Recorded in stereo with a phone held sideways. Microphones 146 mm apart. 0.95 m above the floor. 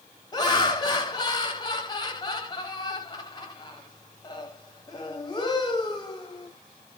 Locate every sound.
0.3 s laughter: 25° left (ahead or behind), 0.8 m